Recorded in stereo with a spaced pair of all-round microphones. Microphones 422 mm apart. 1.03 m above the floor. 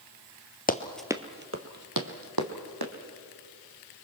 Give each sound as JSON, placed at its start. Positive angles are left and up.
{"t": 0.7, "sound": "running footsteps", "side_deg": 20, "distance_m": 1.1}